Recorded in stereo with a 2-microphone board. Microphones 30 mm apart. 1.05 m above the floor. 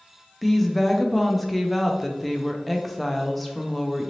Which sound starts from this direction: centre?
A woman speaking, at 0.4 s.